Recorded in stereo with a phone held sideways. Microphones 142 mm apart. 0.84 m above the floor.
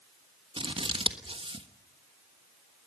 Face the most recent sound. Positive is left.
turn(degrees=-40)  # may be behind; listen again after turning